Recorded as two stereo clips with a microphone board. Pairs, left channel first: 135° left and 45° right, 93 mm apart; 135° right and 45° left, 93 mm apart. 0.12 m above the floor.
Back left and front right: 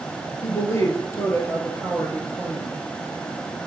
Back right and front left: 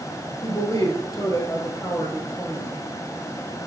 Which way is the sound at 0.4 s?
175° right.